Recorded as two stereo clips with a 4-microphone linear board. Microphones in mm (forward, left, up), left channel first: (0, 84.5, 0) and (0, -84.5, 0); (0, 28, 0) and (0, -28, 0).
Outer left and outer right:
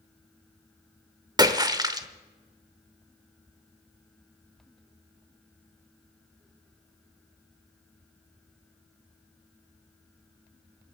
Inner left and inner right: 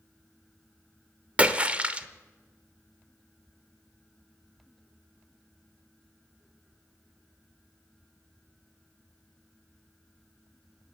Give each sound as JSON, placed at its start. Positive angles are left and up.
{"t": 1.4, "sound": "a splash", "side_deg": -20, "distance_m": 0.9}